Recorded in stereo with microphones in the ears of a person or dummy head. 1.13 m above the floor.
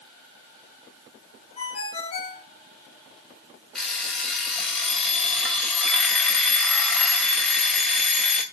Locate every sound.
1.6 s a ringtone: 30° left (ahead or behind), 2 m
3.8 s an alarm clock: centre (ahead or behind), 2.5 m